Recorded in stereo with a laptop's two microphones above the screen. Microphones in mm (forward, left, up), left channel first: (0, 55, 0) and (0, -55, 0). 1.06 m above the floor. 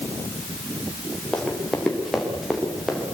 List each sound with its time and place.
1.3 s running footsteps: 5° left (ahead or behind), 6.5 m; by 3.0 s centre (ahead or behind), 8 m